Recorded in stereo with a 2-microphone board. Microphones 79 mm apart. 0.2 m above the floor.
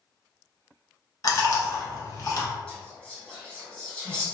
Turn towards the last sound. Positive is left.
turn(degrees=10)  # may be behind; listen again after turning